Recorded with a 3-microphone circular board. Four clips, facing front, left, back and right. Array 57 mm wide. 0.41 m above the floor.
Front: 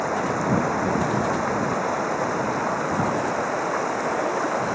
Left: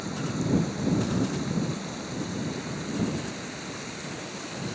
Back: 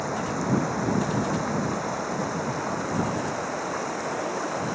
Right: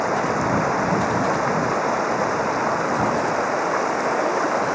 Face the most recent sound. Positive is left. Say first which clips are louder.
# right 11 dB, front 4 dB
turn(degrees=-70)